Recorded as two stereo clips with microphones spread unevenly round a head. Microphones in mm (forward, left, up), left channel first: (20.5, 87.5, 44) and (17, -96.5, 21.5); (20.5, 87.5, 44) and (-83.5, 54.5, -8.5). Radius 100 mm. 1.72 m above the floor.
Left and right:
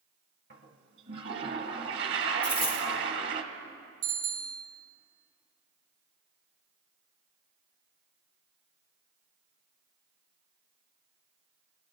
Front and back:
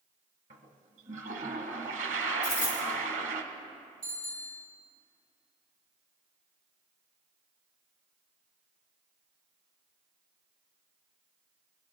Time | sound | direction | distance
0.5 | a toilet flushing | 130° right | 1.1 m
2.4 | a dropped coin | 5° left | 3.5 m
4.0 | a bicycle bell | 90° right | 2 m